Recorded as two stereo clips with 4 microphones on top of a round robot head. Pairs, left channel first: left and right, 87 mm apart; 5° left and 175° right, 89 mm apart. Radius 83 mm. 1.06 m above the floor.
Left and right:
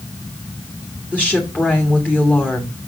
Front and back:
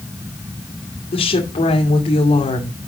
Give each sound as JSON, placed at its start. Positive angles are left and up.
{"t": 1.1, "sound": "a woman speaking", "azimuth_deg": 15, "distance_m": 2.0}